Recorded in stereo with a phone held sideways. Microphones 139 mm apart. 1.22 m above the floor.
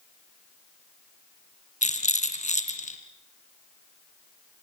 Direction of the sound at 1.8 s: 60° left (ahead or behind).